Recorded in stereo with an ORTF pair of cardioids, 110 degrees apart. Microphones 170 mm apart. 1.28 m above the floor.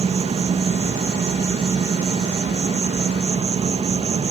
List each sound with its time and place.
0.0 s an insect: 35° right, 1.9 m